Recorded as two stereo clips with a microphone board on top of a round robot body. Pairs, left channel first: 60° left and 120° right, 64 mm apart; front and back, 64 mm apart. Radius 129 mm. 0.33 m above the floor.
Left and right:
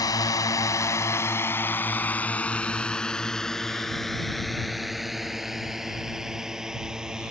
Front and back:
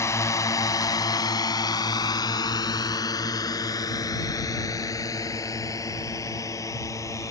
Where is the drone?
45° left; by 7.3 s 40° right.